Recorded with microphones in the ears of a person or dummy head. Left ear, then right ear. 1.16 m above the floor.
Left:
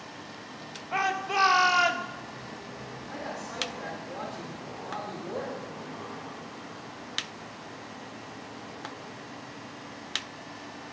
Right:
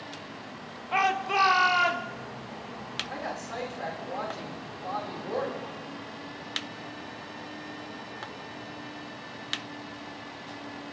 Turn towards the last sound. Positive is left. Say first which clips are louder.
# right 2 dB
turn(degrees=-25)  # may be behind; listen again after turning